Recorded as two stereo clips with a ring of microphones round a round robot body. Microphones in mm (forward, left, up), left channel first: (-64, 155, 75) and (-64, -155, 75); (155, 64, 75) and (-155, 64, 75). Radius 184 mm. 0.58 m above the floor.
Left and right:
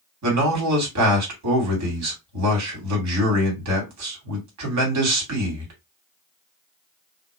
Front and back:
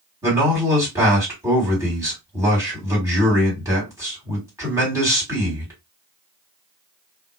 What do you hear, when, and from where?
0.2 s a man speaking: 100° right, 1.9 m